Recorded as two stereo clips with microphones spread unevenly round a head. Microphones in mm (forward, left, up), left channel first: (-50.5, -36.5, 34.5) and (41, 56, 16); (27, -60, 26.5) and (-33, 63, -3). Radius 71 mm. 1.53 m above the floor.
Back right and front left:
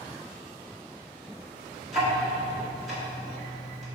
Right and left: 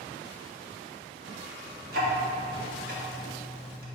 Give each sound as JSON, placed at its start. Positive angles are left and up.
{"t": 1.9, "sound": "ticking", "azimuth_deg": 140, "distance_m": 1.6}